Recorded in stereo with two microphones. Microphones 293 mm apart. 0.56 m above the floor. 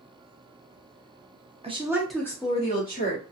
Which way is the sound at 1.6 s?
20° right (ahead or behind).